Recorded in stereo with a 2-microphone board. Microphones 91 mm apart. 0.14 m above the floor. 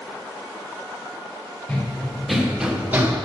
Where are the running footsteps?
10° left (ahead or behind), 2.0 m; by 3.1 s 25° right (ahead or behind), 1.4 m.